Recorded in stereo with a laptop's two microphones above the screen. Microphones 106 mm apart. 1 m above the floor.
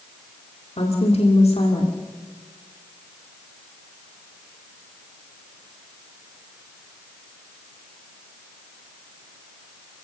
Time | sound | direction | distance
0.8 | a woman speaking | 75° left (ahead or behind) | 2.5 m